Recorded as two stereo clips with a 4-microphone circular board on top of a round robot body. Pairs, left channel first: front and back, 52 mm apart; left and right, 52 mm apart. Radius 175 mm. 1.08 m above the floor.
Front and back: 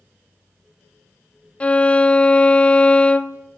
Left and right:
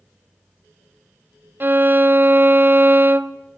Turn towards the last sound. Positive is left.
turn(degrees=-60)